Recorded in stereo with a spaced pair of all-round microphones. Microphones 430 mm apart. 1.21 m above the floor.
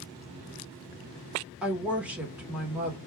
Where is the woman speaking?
5° right (ahead or behind), 1.2 m.